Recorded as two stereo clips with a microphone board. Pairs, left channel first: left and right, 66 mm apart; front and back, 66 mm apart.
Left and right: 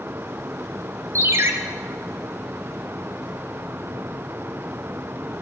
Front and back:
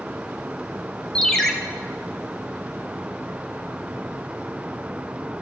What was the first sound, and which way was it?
A ringtone, 85° right.